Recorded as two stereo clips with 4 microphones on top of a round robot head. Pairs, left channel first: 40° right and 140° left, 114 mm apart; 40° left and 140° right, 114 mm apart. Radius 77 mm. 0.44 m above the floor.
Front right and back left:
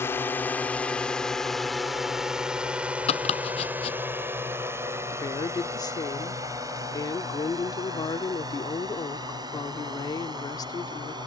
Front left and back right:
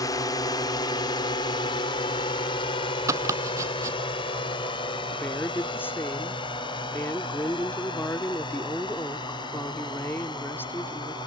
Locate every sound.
0.0 s a drone: 15° left; by 11.3 s 90° left
3.1 s chopping: 75° right
5.1 s a woman speaking: 20° right